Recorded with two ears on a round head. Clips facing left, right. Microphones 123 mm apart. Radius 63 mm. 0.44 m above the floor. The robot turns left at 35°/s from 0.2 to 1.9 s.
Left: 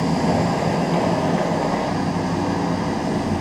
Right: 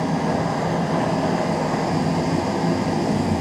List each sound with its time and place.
0.0 s an engine running: 30° left, 2 m; by 3.4 s 30° right, 2 m